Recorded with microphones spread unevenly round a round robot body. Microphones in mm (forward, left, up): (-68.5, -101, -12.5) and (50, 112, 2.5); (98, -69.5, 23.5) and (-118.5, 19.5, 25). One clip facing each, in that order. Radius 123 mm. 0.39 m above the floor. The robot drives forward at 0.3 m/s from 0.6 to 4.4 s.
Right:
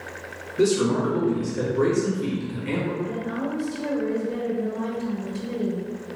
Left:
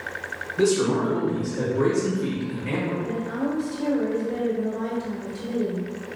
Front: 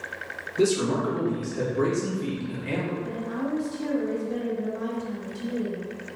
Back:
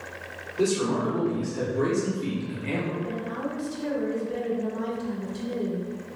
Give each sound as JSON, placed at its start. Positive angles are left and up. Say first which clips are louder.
{"t": 0.6, "sound": "a man speaking", "louder": "even, front 2 dB", "azimuth_deg": -50, "distance_m": 1.1}
{"t": 3.0, "sound": "a woman speaking", "louder": "left 2 dB, front 1 dB", "azimuth_deg": 160, "distance_m": 0.8}